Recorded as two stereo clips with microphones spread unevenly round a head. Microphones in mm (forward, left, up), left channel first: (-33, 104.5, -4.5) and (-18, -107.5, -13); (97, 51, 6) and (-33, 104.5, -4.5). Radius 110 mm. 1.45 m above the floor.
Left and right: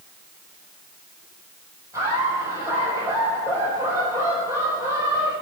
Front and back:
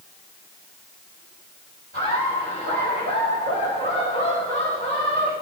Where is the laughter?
165° right, 7 m.